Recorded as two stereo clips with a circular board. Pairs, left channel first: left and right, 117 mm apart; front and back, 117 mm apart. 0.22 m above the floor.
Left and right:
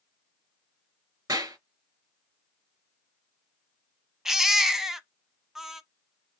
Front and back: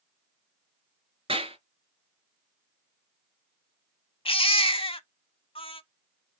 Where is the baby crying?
5° right, 0.6 m.